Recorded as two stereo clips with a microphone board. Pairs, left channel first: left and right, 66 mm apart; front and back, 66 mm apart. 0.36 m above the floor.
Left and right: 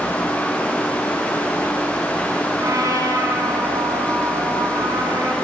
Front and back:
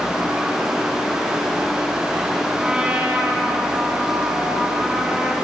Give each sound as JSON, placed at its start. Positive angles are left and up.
{"t": 2.6, "sound": "a trumpet", "azimuth_deg": -105, "distance_m": 3.5}